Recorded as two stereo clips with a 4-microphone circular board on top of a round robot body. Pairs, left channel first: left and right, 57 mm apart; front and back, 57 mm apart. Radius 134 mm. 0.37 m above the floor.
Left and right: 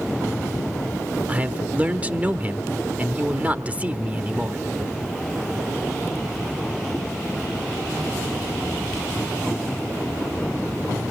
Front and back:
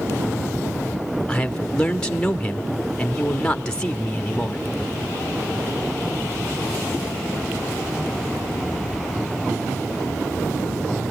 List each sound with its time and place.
1.3 s a man speaking: 60° right, 1.4 m